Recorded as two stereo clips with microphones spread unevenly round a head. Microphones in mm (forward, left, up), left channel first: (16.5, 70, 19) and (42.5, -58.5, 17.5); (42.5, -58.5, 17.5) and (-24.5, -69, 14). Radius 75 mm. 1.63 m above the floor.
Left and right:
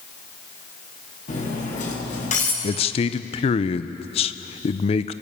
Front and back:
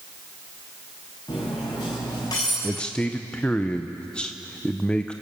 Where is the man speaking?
80° left, 0.6 m.